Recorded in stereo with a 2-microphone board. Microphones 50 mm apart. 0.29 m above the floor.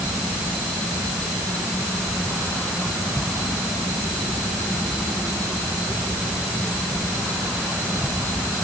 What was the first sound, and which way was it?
Only background noise.